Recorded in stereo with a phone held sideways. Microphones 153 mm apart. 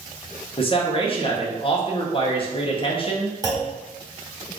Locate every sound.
0.6 s a man speaking: 35° left (ahead or behind), 0.9 m
3.4 s a clunk: 25° right (ahead or behind), 0.9 m